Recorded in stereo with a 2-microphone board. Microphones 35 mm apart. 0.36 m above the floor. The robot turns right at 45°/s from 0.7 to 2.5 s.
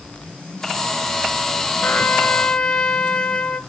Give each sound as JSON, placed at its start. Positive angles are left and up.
{"t": 1.8, "sound": "a trumpet", "azimuth_deg": 135, "distance_m": 0.9}